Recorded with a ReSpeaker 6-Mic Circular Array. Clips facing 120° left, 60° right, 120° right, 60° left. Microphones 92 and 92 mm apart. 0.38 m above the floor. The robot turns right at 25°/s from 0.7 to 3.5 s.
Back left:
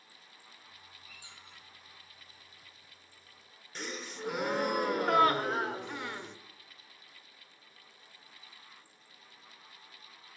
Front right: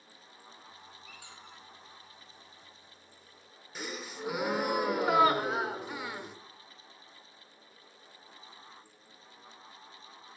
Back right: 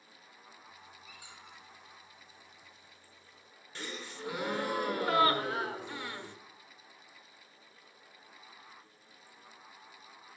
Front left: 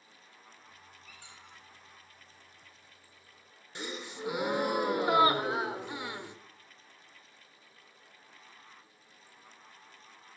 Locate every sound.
1.1 s a squeak: 45° right, 7 m; by 1.6 s 30° right, 7 m
3.8 s a gasp: 20° left, 0.8 m